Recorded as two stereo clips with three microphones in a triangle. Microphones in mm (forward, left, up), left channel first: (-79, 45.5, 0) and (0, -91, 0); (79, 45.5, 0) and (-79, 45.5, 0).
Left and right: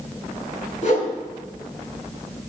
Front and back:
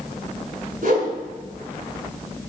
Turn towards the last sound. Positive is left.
turn(degrees=160)